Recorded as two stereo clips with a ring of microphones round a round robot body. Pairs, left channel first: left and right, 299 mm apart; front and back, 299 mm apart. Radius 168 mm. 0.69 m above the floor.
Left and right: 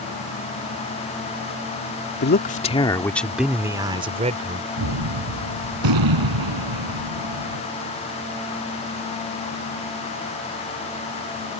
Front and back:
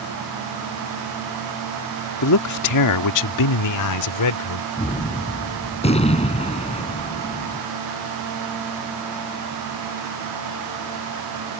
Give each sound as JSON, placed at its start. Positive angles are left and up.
{"t": 2.2, "sound": "a man speaking", "azimuth_deg": 35}
{"t": 4.8, "sound": "a gunshot", "azimuth_deg": -70}